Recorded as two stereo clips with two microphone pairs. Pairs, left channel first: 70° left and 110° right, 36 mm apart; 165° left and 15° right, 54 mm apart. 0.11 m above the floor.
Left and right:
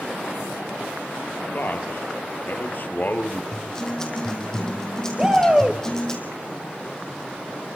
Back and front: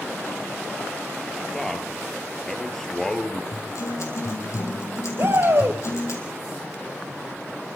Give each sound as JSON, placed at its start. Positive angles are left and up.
{"t": 1.5, "sound": "a man speaking", "azimuth_deg": 85, "distance_m": 2.5}
{"t": 3.5, "sound": "a guitar", "azimuth_deg": 145, "distance_m": 3.5}
{"t": 5.2, "sound": "a shout", "azimuth_deg": -40, "distance_m": 2.5}